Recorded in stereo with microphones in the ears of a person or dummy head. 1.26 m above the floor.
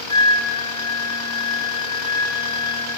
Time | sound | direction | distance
0.1 | a flute | 30° left (ahead or behind) | 2.5 m